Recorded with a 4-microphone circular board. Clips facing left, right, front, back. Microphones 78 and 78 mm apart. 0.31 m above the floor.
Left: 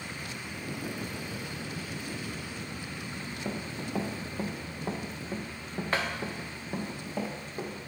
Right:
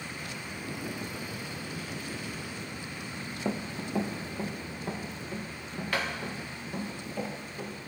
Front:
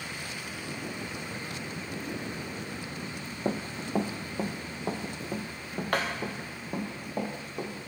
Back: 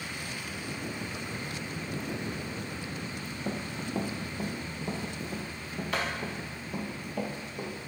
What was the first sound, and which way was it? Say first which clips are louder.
Running footsteps: right 4 dB, front 4 dB; 20° right.